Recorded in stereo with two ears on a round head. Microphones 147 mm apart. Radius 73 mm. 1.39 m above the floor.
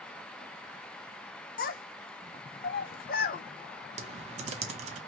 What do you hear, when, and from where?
1.6 s a child speaking: 60° left (ahead or behind), 0.7 m
4.0 s typing on a keyboard: 40° right (ahead or behind), 0.6 m